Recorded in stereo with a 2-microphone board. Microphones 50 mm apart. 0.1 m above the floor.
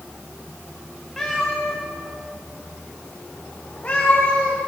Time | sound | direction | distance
1.2 | a cat meowing | 10° left (ahead or behind) | 4.5 m